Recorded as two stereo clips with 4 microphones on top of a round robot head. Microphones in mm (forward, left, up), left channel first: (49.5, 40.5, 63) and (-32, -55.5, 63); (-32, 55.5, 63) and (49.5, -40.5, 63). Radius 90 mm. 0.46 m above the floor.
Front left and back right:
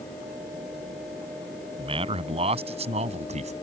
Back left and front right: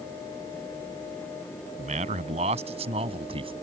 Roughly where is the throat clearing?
No throat clearing in this recording.